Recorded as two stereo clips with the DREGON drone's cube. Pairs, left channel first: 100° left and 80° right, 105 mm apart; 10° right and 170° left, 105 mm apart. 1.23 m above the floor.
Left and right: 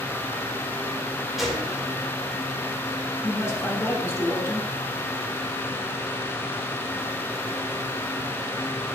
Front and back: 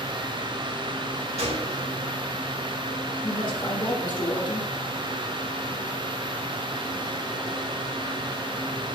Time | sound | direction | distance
1.4 | a gunshot | 170° right | 1.7 m
3.2 | a man speaking | 35° left | 1.9 m